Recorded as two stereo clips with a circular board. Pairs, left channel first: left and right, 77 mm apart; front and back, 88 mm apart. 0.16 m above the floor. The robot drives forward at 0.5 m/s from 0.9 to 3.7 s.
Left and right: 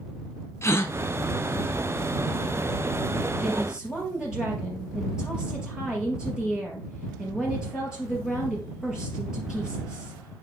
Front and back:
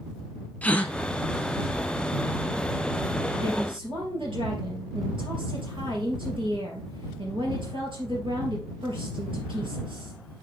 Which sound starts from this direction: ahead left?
A gasp, at 0.6 s.